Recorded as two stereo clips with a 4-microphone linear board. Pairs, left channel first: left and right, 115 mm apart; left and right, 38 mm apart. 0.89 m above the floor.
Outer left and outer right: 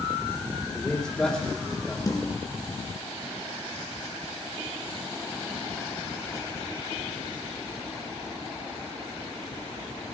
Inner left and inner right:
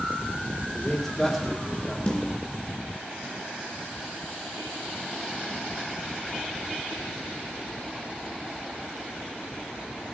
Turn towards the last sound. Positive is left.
turn(degrees=30)  # may be behind; listen again after turning